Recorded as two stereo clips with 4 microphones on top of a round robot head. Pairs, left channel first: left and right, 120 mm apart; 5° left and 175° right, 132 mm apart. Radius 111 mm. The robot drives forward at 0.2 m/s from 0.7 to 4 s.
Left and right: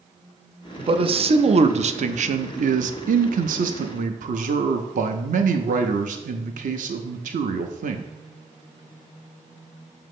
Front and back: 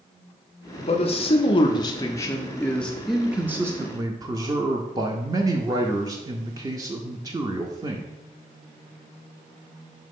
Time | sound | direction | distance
0.8 | a man speaking | 45° right | 0.7 m